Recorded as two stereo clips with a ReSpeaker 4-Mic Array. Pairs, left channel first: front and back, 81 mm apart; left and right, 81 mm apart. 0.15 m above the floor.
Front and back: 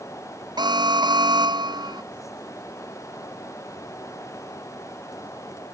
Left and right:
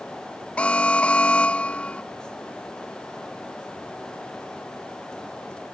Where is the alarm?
165° left.